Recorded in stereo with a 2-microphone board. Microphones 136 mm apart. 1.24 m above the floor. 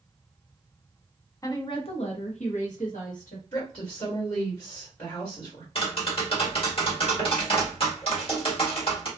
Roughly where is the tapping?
Left.